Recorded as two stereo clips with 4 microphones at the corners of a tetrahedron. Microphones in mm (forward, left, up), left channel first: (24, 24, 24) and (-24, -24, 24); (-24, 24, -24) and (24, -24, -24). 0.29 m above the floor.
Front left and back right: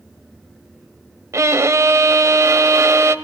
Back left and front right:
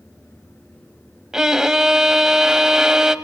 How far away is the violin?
About 0.7 m.